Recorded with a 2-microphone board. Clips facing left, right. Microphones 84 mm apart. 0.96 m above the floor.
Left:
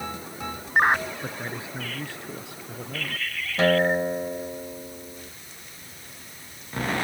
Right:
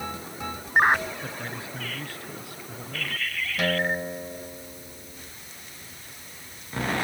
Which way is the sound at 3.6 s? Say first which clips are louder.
Left 6 dB; 30° left (ahead or behind).